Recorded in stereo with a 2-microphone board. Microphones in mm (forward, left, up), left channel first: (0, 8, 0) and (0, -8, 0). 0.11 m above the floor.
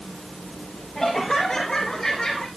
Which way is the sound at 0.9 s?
20° left (ahead or behind).